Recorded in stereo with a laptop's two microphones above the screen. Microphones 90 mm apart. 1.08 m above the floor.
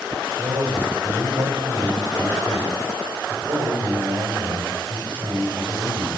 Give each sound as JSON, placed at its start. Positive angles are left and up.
{"t": 0.4, "sound": "a man speaking", "side_deg": -65, "distance_m": 7.0}